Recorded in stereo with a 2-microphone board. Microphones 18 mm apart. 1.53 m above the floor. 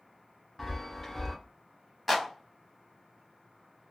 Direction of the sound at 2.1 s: Centre (ahead or behind).